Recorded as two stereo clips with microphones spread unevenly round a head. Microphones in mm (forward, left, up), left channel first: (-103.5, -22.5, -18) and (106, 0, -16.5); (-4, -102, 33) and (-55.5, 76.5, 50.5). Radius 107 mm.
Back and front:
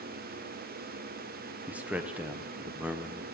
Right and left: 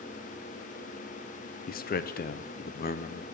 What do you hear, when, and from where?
1.7 s a man speaking: 75° right, 0.8 m